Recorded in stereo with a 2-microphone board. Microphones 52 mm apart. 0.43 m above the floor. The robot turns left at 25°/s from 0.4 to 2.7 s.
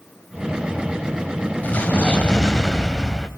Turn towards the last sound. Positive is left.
turn(degrees=5)  # may be behind; listen again after turning